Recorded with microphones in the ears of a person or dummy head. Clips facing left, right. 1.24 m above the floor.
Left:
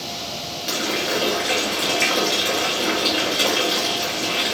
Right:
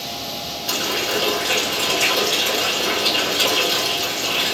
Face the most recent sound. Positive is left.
turn(degrees=30)  # may be behind; listen again after turning